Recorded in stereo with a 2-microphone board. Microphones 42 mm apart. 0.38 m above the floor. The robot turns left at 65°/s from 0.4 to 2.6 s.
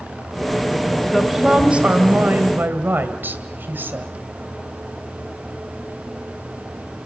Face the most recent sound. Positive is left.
turn(degrees=-95)